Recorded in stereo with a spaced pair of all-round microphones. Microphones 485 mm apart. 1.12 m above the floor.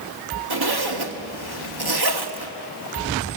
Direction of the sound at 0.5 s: 50° right (ahead or behind).